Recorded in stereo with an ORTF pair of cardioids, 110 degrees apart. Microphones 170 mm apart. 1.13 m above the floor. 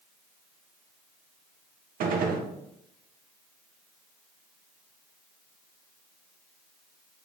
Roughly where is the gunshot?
Ahead right.